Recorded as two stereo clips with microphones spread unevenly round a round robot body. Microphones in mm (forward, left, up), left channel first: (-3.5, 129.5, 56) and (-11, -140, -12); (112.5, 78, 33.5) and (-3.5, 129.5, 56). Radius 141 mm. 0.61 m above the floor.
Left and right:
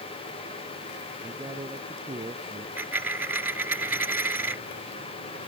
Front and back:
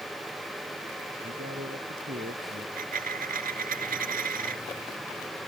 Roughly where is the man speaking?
Behind.